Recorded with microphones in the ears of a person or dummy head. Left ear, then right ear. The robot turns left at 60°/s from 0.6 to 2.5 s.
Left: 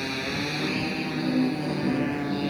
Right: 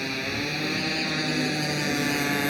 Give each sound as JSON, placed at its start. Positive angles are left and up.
{"t": 0.0, "sound": "a motorcycle", "azimuth_deg": -15}